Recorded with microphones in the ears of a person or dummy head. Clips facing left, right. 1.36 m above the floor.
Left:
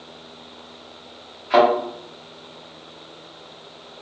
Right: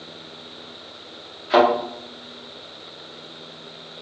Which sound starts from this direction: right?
A thud, at 1.5 s.